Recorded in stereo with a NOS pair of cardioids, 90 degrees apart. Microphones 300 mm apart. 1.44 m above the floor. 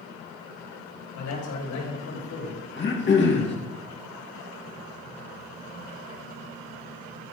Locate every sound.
1.1 s a man speaking: 70° left, 6 m; by 2.6 s 75° left, 5 m
2.8 s throat clearing: 40° left, 2.5 m